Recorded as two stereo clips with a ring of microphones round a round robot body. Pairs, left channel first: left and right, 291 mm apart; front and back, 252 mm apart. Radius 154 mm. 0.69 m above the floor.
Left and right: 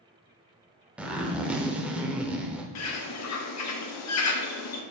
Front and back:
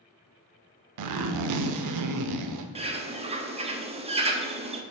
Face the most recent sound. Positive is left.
turn(degrees=115)